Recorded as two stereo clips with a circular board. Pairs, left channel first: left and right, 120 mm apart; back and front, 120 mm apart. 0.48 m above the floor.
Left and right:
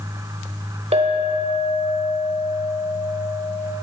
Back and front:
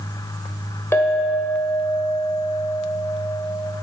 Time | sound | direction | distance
0.9 | a clink | 115° right | 1.0 m